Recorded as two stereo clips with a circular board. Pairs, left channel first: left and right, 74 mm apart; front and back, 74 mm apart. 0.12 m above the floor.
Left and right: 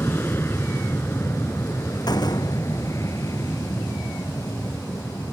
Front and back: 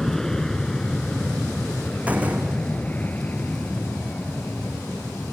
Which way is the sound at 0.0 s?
80° left.